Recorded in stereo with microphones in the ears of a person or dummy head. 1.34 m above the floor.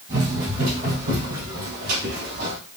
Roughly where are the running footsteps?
Right.